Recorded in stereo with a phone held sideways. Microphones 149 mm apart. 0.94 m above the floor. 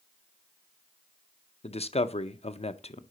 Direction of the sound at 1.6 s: 45° left (ahead or behind).